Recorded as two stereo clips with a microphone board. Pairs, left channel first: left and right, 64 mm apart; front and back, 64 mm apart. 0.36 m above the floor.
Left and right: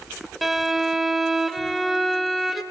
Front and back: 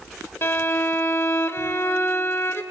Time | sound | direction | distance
0.4 | a violin | straight ahead | 1.0 m